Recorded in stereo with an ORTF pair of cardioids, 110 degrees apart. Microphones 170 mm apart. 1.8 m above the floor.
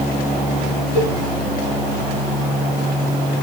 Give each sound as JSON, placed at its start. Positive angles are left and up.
{"t": 0.9, "sound": "a cowbell", "azimuth_deg": -40, "distance_m": 3.5}